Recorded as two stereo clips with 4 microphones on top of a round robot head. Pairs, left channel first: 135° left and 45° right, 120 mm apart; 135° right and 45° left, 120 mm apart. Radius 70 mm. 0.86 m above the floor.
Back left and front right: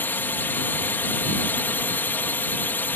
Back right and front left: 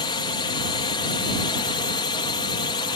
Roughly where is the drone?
Behind.